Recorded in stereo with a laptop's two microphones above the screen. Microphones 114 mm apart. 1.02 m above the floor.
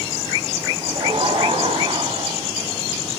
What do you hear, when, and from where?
0.8 s laughter: 45° right (ahead or behind), 6.5 m